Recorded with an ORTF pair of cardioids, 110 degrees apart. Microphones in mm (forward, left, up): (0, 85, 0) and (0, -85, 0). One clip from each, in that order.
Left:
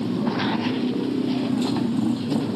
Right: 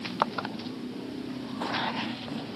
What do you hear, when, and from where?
0.0 s a motorcycle: 70° left